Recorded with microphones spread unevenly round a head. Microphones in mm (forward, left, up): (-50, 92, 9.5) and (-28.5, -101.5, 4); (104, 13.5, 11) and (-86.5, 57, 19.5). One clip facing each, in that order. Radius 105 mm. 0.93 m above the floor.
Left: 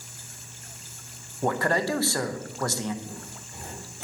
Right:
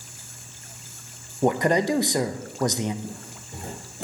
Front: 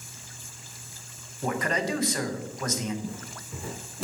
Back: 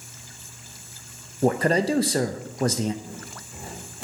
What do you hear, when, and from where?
1.4 s a man speaking: 145° right, 0.6 m
3.0 s footsteps: 20° right, 3 m; by 4.0 s 25° right, 2.5 m